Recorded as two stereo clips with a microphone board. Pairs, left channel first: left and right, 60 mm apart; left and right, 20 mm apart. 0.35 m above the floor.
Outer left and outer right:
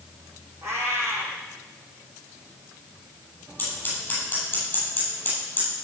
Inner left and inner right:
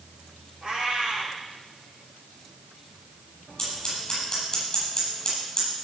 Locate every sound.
0.6 s a cat meowing: 50° right (ahead or behind), 7 m
3.6 s scissors: 30° left (ahead or behind), 8.5 m